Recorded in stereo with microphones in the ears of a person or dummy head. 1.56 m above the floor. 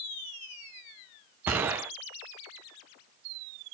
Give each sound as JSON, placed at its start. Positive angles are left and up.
{"t": 1.5, "sound": "a gunshot", "side_deg": -15, "distance_m": 0.5}